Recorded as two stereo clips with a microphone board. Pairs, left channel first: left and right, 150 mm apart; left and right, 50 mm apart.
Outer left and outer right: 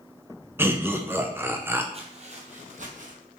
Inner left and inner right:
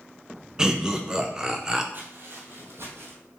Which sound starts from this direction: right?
Footsteps, at 1.9 s.